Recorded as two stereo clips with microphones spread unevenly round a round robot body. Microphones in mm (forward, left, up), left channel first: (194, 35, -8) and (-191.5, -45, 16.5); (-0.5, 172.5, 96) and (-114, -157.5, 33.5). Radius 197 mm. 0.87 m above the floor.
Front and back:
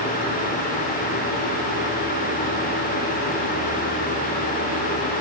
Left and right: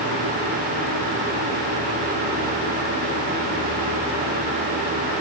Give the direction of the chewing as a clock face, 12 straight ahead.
I don't hear chewing.